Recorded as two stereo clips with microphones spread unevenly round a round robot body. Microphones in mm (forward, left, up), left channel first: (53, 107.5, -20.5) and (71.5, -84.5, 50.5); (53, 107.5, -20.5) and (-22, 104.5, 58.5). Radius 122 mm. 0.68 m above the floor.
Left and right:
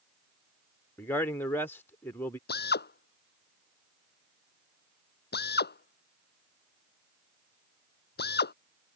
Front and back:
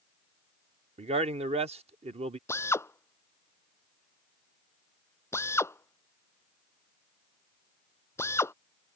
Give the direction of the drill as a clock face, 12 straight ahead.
10 o'clock.